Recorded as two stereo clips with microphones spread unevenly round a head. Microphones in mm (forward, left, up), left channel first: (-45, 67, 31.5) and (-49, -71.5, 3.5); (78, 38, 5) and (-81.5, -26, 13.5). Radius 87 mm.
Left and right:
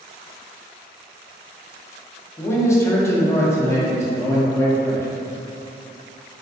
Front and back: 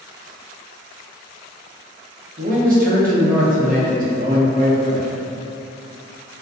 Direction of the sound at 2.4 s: 160° left.